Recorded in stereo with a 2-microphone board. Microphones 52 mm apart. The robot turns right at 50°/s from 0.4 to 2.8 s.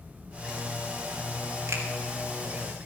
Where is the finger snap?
75° right (ahead or behind), 2.5 m; by 1.8 s 70° right (ahead or behind), 2.5 m.